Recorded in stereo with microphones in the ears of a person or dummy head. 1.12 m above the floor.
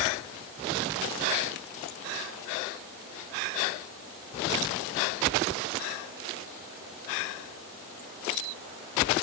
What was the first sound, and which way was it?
Only background noise.